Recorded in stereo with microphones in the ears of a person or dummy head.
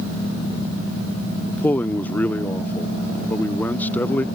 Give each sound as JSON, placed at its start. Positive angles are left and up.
{"t": 1.5, "sound": "a man speaking", "side_deg": 10}